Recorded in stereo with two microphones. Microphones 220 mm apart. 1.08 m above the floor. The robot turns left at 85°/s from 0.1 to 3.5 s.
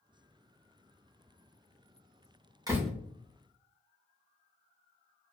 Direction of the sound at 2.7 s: 15° right (ahead or behind).